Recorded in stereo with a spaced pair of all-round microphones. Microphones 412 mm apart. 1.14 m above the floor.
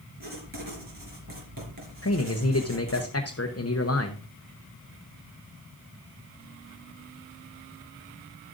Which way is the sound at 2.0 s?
35° left (ahead or behind).